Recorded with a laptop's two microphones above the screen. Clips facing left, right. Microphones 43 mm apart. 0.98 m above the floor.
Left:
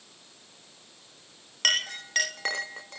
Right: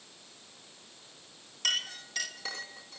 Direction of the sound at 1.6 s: 55° left (ahead or behind).